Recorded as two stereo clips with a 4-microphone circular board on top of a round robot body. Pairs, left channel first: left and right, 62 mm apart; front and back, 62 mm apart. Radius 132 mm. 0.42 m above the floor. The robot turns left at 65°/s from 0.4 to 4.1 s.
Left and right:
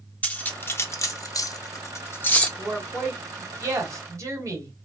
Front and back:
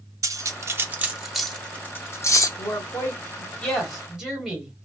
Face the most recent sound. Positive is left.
turn(degrees=-105)